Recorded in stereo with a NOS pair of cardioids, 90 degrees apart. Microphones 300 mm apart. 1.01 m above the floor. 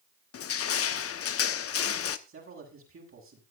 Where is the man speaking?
45° right, 7.5 m.